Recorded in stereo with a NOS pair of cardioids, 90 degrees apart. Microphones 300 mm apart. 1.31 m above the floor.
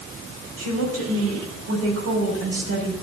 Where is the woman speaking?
55° right, 6 m.